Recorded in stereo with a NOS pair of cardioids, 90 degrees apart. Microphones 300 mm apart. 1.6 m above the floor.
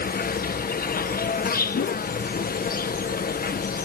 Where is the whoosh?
40° left.